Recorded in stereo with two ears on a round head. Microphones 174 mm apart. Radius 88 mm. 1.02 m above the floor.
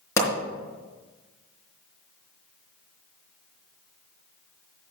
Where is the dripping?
I don't hear dripping.